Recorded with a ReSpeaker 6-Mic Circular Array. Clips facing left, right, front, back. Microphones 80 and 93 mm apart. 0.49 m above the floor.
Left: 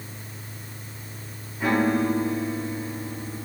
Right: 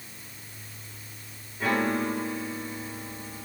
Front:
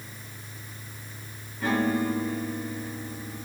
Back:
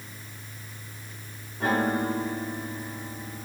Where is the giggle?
I don't hear a giggle.